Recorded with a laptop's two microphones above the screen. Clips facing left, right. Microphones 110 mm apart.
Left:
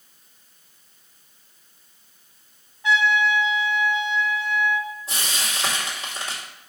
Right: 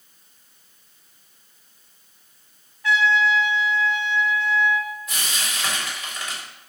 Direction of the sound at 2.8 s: 20° left (ahead or behind).